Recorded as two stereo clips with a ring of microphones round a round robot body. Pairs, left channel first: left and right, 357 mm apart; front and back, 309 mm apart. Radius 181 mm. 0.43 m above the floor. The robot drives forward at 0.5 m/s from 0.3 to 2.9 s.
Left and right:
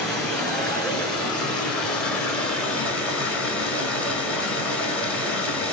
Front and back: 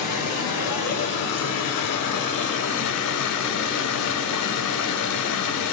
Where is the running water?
Straight ahead, 2.5 m; by 5.7 s 5° left, 1.3 m.